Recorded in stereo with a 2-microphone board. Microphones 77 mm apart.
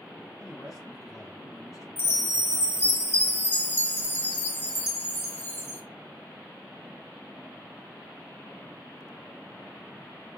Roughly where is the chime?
Left.